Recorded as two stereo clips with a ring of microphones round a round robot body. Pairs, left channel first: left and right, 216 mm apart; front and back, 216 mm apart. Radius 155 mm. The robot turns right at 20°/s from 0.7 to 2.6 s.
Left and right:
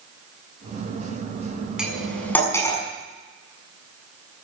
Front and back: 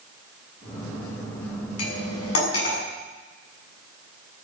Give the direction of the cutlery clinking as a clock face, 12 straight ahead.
12 o'clock.